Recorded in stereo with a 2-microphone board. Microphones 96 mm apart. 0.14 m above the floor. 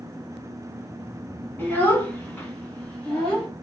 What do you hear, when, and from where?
1.6 s a child speaking: 20° left (ahead or behind), 0.9 m; by 3.5 s 10° left (ahead or behind), 1.3 m